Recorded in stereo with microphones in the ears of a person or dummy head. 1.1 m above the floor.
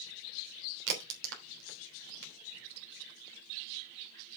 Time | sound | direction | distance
0.9 | a crack | 70° right (ahead or behind) | 3 m